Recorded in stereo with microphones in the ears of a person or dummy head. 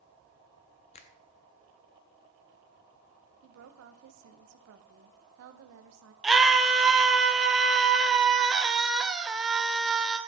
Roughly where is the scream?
Centre.